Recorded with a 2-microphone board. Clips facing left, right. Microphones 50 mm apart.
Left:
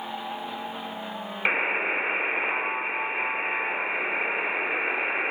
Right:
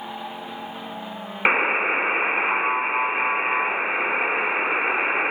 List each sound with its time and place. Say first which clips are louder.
1.4 s a buzzer: right 5 dB; 35° right (ahead or behind), 0.6 m